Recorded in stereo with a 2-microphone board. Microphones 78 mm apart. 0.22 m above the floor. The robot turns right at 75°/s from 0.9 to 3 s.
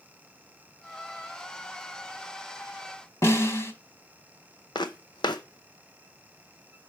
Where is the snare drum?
35° left (ahead or behind), 0.8 m.